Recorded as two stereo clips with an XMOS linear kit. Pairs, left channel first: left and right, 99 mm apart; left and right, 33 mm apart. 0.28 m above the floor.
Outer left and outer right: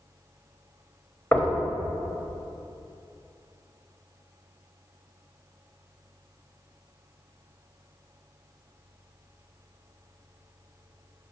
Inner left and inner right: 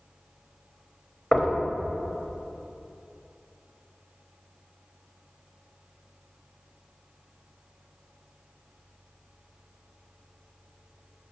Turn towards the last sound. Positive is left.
turn(degrees=15)  # may be behind; listen again after turning